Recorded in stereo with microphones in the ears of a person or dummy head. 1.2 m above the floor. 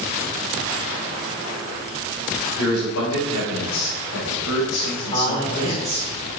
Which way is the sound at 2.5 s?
90° left.